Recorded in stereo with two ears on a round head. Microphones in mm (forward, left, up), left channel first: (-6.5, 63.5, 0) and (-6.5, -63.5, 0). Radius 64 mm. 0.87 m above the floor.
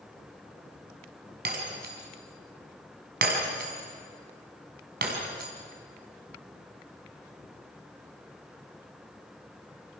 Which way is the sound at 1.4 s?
85° right.